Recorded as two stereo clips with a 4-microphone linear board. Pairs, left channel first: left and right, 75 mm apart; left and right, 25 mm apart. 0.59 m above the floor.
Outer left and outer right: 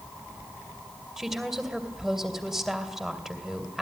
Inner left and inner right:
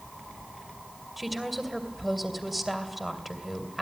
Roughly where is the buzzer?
No buzzer in this recording.